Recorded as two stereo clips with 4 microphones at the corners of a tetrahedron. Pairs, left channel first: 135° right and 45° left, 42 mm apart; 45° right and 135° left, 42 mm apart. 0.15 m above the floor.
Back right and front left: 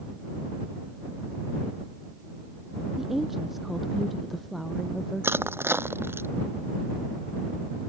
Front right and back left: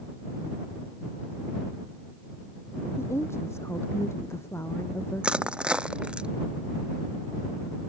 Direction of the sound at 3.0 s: 35° right.